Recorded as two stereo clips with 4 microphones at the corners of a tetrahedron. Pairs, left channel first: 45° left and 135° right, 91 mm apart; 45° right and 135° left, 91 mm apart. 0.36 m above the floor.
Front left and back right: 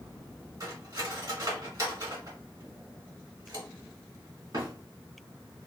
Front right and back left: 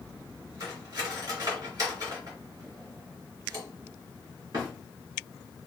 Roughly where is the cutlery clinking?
Behind.